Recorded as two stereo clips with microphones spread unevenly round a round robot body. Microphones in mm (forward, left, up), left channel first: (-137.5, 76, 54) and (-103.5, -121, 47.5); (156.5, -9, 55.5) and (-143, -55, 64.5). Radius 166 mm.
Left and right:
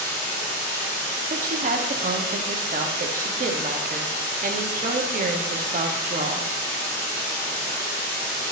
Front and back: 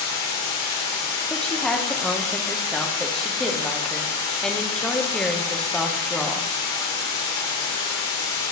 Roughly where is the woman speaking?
Right.